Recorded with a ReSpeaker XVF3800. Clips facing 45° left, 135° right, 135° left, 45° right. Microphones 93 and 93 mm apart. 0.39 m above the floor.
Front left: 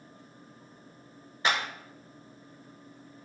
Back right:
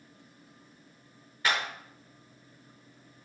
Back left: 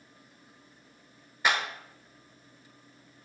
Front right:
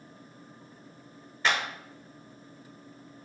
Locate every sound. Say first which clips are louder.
1.4 s a clap: front left 1 dB, even; 75° left, 0.8 m